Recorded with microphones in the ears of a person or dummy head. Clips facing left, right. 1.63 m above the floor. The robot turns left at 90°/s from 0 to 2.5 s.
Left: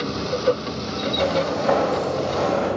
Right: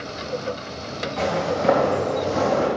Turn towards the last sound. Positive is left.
turn(degrees=-60)  # may be behind; listen again after turning